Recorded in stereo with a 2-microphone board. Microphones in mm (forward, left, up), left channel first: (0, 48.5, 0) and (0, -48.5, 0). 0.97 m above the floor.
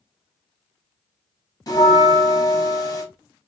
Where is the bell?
40° left (ahead or behind), 0.7 m.